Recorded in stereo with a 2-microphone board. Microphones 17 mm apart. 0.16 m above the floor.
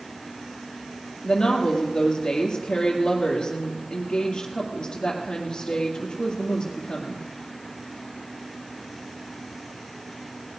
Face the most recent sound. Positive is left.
turn(degrees=50)  # may be behind; listen again after turning